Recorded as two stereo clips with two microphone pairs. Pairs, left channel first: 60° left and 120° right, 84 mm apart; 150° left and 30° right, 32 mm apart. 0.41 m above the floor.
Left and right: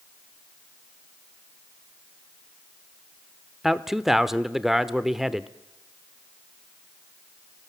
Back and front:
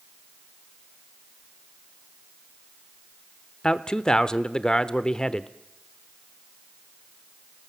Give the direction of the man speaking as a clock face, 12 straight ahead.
7 o'clock.